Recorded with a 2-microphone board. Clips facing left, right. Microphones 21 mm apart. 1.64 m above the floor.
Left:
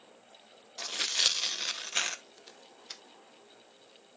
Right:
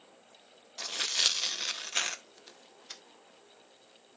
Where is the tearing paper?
5° left (ahead or behind), 0.7 m.